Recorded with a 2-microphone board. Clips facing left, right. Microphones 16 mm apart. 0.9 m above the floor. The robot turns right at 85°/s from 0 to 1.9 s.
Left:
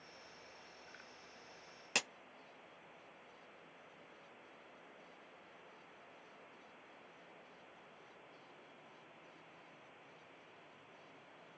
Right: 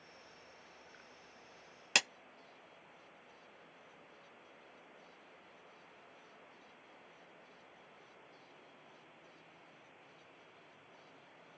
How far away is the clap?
About 0.8 m.